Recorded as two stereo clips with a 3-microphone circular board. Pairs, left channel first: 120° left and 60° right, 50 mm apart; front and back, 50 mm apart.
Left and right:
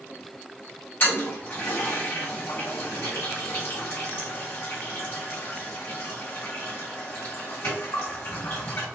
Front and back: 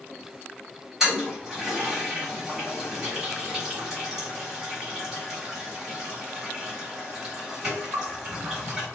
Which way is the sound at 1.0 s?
105° left.